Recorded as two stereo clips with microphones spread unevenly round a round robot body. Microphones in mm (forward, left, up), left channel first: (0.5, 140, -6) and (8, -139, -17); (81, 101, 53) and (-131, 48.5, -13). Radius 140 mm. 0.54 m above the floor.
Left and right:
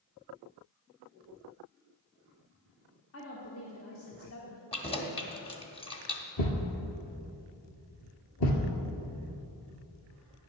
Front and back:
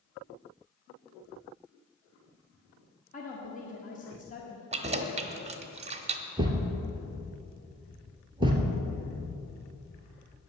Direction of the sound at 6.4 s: 120° left.